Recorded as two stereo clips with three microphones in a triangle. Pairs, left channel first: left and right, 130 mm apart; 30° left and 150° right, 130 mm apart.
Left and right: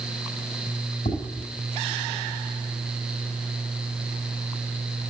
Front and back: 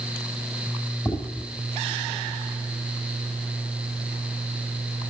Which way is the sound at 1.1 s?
90° left.